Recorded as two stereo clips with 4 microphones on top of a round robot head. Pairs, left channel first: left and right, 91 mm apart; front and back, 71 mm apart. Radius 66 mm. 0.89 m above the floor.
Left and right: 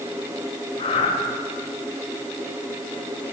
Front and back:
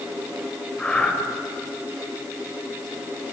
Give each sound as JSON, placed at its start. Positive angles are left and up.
{"t": 0.8, "sound": "breathing", "azimuth_deg": 80, "distance_m": 3.5}